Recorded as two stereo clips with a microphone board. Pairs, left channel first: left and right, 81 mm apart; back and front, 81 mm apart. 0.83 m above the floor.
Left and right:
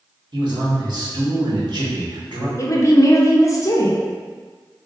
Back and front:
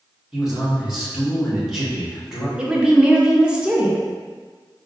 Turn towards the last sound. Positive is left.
turn(degrees=75)